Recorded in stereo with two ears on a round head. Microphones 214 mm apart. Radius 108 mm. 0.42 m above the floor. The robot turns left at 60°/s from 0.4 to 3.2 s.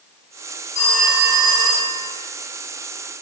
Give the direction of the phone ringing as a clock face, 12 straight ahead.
11 o'clock.